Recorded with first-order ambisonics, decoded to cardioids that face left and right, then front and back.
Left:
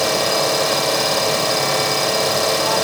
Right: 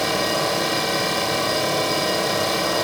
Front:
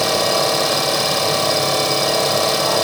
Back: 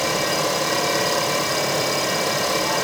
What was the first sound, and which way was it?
An engine running, 25° left.